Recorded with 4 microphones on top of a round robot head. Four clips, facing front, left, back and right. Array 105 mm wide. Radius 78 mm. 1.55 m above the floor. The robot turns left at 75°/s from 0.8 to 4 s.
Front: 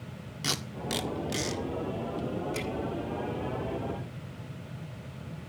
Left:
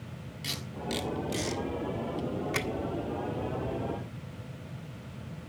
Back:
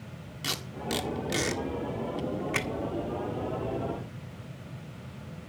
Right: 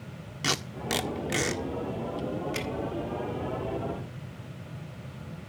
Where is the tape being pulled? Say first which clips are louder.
Right 6 dB, even; 80° right, 1.5 m; by 2.7 s 140° left, 1.5 m.